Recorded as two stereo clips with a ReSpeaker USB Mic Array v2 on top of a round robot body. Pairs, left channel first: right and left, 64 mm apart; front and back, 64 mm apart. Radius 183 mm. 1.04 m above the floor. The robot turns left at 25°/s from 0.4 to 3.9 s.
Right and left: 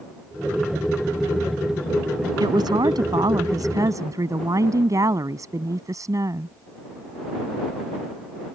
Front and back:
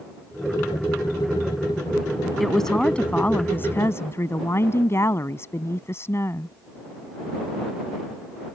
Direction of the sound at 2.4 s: 90° left.